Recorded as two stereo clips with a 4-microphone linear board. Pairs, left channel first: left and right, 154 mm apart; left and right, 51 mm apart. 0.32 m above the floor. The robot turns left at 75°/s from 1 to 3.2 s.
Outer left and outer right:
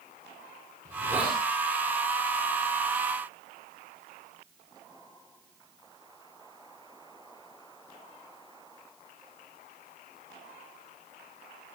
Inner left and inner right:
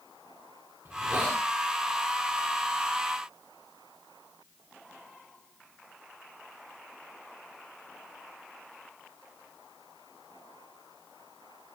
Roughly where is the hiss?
Behind right.